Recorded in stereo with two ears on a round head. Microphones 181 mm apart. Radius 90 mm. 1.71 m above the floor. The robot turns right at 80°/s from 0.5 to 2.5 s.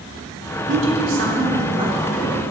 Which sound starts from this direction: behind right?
A woman speaking, at 0.7 s.